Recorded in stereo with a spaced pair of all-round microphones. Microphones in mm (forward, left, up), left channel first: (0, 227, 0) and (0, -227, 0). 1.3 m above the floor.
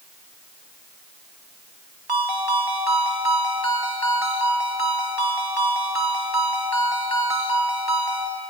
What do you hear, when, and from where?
2.1 s a ringtone: 55° right (ahead or behind), 2.5 m